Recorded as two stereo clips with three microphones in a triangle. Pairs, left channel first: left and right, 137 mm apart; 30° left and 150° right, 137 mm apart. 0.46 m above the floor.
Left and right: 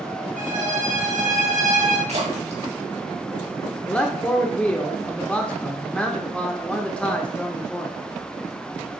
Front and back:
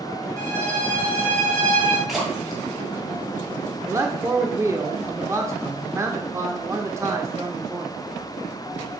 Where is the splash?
60° right, 3.5 m.